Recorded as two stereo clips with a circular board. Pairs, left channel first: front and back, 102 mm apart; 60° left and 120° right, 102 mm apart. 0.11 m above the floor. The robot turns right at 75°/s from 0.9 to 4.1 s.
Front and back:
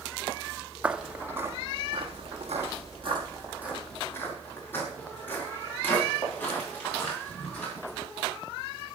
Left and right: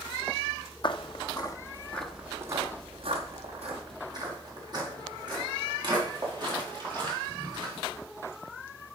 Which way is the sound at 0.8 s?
100° left.